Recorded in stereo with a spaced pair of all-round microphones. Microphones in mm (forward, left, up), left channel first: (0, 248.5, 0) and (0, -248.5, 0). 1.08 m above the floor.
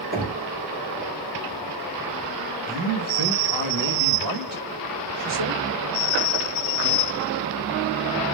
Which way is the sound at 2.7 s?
45° right (ahead or behind).